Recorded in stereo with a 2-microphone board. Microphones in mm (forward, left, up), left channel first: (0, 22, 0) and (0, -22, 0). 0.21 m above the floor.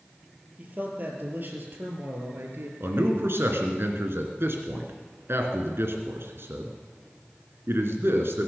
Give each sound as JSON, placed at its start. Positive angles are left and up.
{"t": 0.6, "sound": "a man speaking", "side_deg": -40, "distance_m": 4.5}
{"t": 2.8, "sound": "a man speaking", "side_deg": -65, "distance_m": 2.5}